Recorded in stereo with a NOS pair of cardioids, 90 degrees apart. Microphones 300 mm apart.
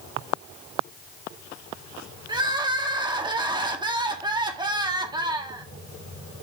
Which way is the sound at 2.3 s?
15° right.